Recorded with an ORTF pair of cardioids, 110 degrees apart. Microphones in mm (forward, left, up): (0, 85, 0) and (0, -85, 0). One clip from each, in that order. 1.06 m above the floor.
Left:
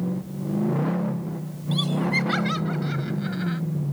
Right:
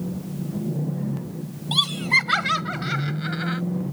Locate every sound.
1.7 s laughter: 45° right; by 3.6 s 40° right